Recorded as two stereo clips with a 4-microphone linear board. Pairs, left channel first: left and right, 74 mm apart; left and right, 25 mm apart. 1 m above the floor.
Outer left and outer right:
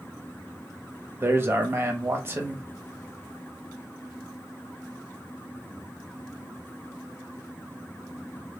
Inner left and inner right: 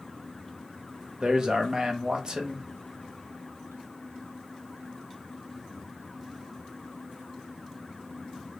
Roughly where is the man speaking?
Right.